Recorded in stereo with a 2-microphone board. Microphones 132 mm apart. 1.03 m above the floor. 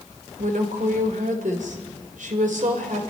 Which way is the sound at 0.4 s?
85° right.